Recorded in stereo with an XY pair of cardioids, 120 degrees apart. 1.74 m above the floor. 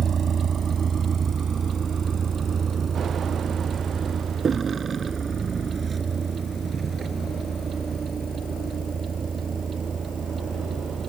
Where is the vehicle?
45° right; by 11.1 s 35° right.